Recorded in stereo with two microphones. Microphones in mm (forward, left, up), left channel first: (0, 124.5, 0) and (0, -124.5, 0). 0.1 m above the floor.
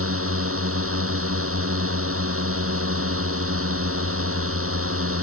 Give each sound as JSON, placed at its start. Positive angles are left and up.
{"t": 0.0, "sound": "a drone", "side_deg": -55}